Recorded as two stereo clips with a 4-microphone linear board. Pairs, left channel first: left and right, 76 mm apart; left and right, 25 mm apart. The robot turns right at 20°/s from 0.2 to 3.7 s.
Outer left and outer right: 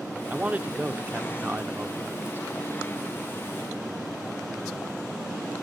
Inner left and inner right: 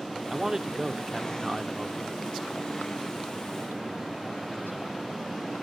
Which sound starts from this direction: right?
A man speaking, at 0.3 s.